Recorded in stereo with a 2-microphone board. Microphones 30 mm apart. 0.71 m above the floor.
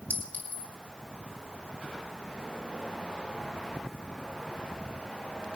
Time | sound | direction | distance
0.1 | a clink | 65° left (ahead or behind) | 3.5 m